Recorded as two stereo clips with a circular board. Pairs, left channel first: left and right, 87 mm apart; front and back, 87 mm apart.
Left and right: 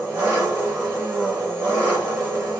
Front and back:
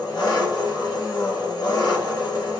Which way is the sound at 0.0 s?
40° right.